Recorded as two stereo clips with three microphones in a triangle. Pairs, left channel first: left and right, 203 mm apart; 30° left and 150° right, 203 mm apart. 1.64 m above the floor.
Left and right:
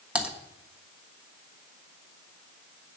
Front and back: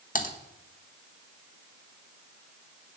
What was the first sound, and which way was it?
Typing on a keyboard, 5° right.